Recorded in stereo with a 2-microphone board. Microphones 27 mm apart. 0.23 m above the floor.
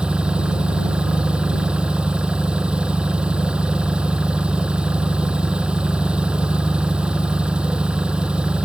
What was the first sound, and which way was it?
An engine running, 40° right (ahead or behind).